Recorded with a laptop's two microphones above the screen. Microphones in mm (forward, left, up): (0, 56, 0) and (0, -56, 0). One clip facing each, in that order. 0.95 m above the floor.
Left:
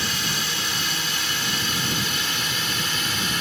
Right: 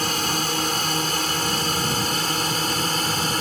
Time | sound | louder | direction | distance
0.0 | a drone | right 5 dB | 45° right (ahead or behind) | ?